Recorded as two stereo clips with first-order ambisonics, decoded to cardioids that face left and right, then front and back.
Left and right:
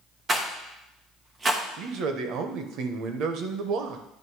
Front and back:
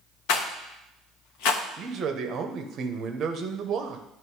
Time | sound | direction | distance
0.3 | a rattle | 15° right | 0.9 m
1.8 | a man speaking | 125° right | 0.9 m